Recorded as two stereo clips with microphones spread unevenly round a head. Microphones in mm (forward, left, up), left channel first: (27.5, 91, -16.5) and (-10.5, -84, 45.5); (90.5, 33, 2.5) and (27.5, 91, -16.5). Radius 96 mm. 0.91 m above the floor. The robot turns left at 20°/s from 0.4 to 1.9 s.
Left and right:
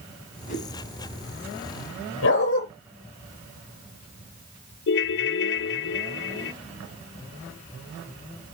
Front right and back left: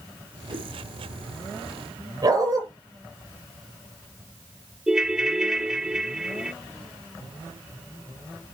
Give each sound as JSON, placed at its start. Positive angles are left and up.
{"t": 0.5, "sound": "a whoosh", "azimuth_deg": 125, "distance_m": 5.5}
{"t": 2.2, "sound": "a dog barking", "azimuth_deg": 90, "distance_m": 6.5}
{"t": 4.9, "sound": "a ringtone", "azimuth_deg": 55, "distance_m": 0.5}